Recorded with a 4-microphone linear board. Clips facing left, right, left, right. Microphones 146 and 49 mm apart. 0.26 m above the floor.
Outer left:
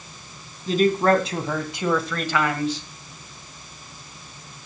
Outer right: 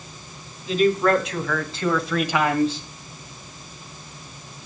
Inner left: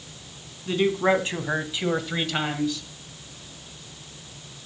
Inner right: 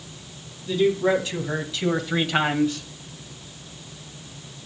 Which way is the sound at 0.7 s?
45° left (ahead or behind).